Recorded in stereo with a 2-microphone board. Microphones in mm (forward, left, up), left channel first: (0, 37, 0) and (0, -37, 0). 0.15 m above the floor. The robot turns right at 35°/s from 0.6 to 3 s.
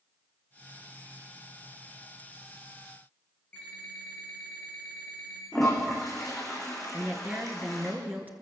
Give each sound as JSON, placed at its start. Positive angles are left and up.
{"t": 3.5, "sound": "an alarm clock", "side_deg": 15, "distance_m": 9.5}
{"t": 5.5, "sound": "a toilet flushing", "side_deg": 0, "distance_m": 6.5}
{"t": 6.9, "sound": "a woman speaking", "side_deg": -25, "distance_m": 2.5}